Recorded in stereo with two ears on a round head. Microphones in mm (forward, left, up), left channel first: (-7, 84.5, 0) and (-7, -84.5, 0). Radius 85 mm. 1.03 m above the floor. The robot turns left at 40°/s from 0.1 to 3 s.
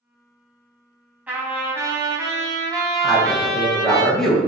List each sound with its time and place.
1.3 s a trumpet: 10° right (ahead or behind), 0.9 m; by 4.0 s 20° right (ahead or behind), 0.9 m
3.0 s a man speaking: 5° left (ahead or behind), 0.8 m